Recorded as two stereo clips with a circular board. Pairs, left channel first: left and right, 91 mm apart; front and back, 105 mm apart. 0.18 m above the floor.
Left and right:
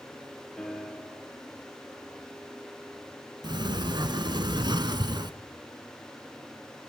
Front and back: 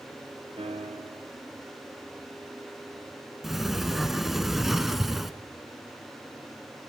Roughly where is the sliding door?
Right.